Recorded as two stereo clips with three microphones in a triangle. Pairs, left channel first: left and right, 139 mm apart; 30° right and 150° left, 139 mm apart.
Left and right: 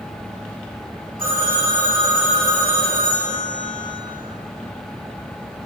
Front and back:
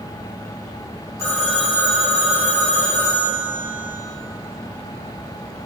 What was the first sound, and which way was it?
A phone ringing, 100° right.